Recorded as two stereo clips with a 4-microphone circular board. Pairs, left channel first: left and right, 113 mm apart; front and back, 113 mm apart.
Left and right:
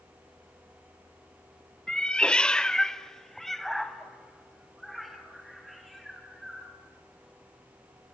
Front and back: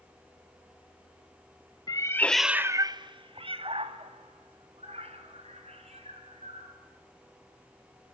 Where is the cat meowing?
10° left, 0.6 m; by 6.8 s straight behind, 3.5 m.